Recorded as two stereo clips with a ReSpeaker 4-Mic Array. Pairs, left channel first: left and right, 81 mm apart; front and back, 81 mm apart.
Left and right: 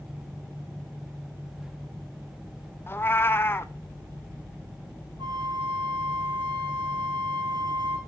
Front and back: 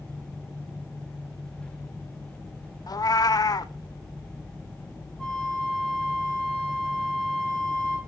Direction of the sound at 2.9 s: 30° left.